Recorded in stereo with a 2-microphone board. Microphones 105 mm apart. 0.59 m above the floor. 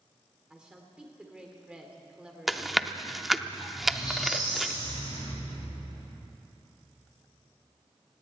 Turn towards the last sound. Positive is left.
turn(degrees=40)  # may be behind; listen again after turning